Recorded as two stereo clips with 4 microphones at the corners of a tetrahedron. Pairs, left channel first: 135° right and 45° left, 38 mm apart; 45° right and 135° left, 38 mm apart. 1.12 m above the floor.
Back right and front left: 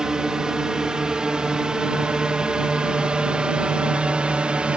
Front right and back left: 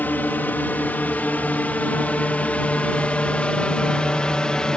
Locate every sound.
0.0 s a drone: 25° right; by 4.8 s 10° left